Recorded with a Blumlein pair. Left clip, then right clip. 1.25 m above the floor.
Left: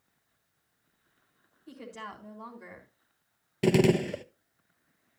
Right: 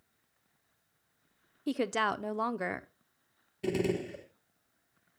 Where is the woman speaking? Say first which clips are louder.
Right 13 dB; 50° right, 0.7 m.